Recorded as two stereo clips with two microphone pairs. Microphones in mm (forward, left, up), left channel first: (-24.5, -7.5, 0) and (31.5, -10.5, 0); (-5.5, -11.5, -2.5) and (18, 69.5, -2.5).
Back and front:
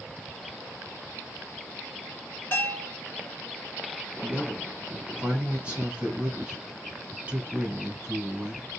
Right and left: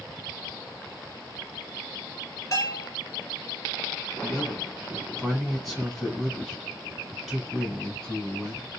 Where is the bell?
140° right, 1.3 m.